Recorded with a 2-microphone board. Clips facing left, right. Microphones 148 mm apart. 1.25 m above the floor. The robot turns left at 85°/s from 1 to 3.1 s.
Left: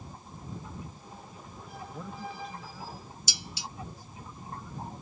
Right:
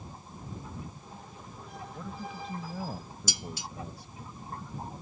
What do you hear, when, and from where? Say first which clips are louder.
1.9 s a man speaking: even; 15° left; by 4.1 s 85° right
3.3 s dishes clattering: right 4 dB; 50° right (ahead or behind)